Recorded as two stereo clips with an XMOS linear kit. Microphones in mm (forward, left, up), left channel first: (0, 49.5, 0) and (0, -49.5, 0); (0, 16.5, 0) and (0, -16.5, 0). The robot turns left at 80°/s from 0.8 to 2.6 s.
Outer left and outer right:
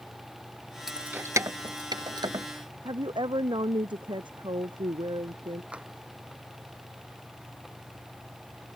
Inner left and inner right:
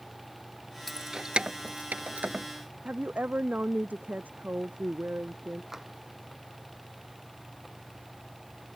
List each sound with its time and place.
0.9 s keys jangling: 5° right (ahead or behind); by 2.5 s 35° right (ahead or behind)
2.9 s a woman speaking: 55° right (ahead or behind)
5.7 s tapping: 10° right (ahead or behind)